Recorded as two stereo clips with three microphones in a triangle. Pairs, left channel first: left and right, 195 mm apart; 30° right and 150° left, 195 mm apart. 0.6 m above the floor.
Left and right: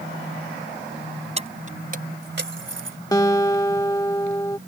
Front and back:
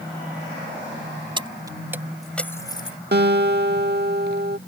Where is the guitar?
160° left.